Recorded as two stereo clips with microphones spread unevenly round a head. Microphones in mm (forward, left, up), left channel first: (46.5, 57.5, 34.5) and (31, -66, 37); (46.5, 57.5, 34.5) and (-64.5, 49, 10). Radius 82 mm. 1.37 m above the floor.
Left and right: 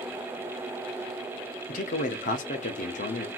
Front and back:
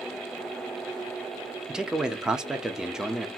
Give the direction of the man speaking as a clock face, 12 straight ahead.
9 o'clock.